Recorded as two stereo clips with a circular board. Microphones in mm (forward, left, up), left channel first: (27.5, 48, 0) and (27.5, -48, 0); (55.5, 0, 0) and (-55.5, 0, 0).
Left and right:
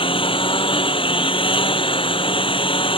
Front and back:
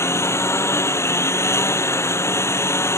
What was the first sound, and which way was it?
A lawn mower, 65° left.